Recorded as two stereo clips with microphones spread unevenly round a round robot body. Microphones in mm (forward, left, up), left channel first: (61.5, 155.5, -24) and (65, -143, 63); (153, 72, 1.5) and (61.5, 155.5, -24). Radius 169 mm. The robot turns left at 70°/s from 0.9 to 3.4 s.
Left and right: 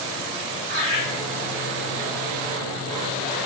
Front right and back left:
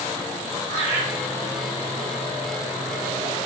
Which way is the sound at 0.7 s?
105° right.